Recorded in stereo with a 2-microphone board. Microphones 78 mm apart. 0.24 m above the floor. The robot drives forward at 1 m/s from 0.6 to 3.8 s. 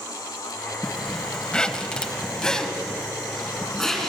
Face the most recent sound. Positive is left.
turn(degrees=5)  # may be behind; listen again after turning